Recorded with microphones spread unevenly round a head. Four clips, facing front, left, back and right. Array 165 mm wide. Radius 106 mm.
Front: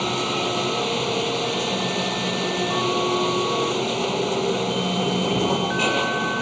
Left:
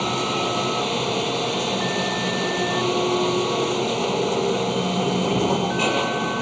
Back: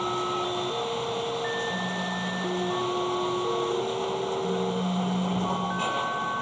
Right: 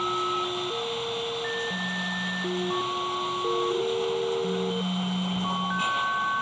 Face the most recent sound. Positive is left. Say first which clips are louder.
# left 4 dB, front 4 dB
turn(degrees=45)